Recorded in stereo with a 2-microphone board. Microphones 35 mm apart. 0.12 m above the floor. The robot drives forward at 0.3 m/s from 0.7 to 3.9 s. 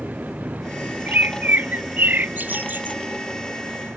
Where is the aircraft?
25° right (ahead or behind); by 4.0 s 20° right (ahead or behind).